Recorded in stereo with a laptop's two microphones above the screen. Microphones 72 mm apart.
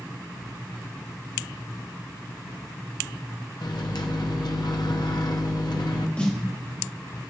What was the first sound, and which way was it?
A microwave, 70° left (ahead or behind).